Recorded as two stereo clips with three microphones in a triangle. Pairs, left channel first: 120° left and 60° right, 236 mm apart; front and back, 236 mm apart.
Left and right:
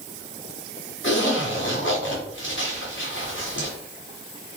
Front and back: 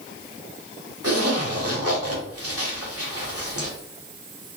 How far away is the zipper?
About 1.0 m.